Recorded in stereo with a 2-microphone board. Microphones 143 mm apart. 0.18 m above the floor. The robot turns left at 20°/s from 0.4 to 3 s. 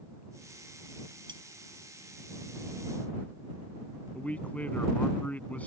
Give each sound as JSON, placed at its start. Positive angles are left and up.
{"t": 1.3, "sound": "cutlery clinking", "side_deg": -35}
{"t": 4.2, "sound": "a man speaking", "side_deg": 10}